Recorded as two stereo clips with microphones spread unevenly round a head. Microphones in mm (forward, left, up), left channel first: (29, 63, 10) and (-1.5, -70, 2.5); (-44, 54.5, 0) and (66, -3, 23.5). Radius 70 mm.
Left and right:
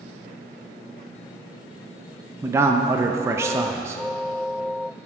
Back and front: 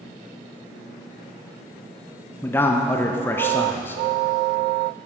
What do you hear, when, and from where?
2.4 s a man speaking: 160° right, 0.6 m